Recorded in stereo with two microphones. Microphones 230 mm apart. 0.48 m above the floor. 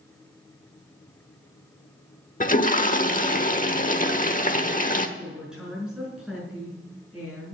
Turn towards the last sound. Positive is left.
turn(degrees=-5)  # may be behind; listen again after turning